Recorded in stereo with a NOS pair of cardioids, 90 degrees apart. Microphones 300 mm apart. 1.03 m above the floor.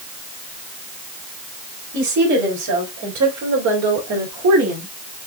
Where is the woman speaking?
65° right, 4 m; by 4.9 s 55° right, 2.5 m.